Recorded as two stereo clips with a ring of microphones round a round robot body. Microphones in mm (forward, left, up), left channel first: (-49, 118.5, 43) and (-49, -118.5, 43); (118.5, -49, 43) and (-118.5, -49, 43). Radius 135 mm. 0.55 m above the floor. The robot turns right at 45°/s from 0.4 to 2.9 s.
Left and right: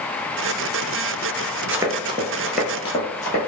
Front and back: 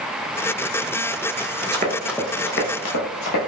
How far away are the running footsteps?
About 0.6 m.